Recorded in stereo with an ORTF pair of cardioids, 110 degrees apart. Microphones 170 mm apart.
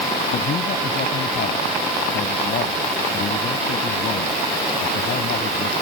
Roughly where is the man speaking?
Ahead left.